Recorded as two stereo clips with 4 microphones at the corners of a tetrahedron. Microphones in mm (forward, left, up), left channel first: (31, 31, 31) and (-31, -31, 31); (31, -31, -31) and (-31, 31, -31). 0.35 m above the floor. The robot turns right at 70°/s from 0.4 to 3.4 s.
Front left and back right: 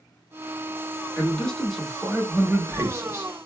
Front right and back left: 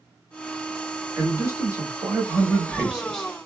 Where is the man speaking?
95° left, 0.9 m; by 3.3 s 120° right, 0.9 m.